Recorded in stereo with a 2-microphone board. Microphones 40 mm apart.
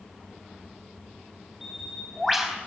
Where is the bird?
5° right (ahead or behind), 4 m.